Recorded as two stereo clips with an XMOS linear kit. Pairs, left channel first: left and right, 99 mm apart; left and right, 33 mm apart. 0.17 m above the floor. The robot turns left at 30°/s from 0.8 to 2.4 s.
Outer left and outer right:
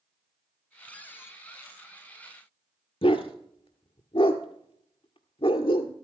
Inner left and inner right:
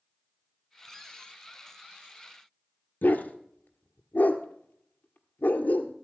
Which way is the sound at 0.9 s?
10° left (ahead or behind).